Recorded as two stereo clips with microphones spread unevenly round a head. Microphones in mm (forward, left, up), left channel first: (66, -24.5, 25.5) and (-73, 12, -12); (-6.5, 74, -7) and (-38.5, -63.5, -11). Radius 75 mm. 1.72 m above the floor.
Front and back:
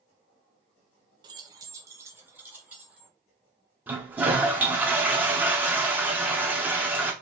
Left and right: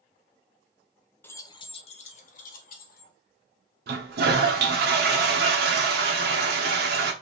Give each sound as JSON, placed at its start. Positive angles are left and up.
{"t": 1.2, "sound": "keys jangling", "azimuth_deg": 115, "distance_m": 0.6}
{"t": 3.9, "sound": "a toilet flushing", "azimuth_deg": -115, "distance_m": 1.1}